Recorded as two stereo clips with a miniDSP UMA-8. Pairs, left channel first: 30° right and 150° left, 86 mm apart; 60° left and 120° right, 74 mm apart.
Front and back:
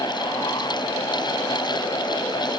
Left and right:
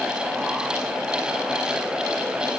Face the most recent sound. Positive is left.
No sound to turn to.